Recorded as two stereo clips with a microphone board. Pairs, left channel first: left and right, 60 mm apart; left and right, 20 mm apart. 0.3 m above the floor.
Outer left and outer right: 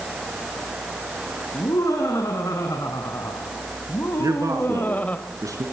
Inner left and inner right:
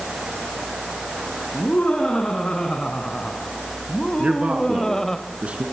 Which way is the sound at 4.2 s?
65° right (ahead or behind).